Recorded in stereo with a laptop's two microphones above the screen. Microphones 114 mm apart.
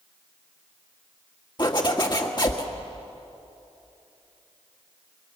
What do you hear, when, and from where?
1.6 s a zipper: 40° left (ahead or behind), 1.8 m